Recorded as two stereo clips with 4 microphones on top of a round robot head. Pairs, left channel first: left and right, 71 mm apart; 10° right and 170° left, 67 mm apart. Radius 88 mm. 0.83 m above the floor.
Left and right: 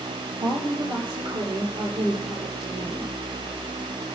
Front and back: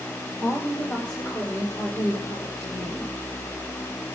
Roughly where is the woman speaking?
Right.